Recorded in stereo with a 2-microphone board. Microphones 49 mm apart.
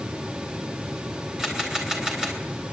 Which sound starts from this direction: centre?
A camera shutter, at 1.4 s.